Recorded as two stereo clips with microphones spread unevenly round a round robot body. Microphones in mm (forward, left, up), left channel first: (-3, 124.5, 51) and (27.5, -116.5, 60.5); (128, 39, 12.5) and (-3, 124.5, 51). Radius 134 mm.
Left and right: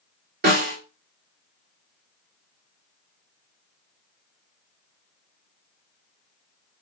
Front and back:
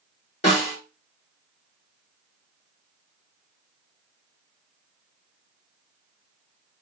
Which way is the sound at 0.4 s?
40° right.